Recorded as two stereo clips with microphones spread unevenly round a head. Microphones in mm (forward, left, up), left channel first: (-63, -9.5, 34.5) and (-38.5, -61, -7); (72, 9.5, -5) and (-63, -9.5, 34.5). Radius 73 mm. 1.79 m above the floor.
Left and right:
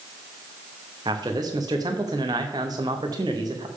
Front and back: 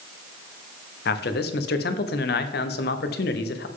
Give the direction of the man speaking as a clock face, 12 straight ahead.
12 o'clock.